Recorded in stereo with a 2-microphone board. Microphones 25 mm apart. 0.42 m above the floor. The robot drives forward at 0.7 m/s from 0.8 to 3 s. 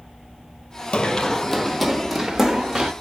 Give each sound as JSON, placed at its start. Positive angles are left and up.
{"t": 0.9, "sound": "running footsteps", "side_deg": 45, "distance_m": 0.7}